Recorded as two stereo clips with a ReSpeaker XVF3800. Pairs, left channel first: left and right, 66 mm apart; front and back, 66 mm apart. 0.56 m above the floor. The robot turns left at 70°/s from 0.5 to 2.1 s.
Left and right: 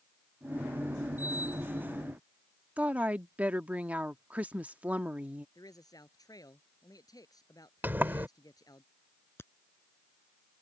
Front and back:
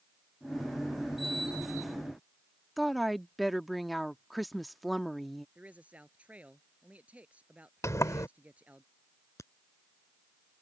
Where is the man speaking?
110° left.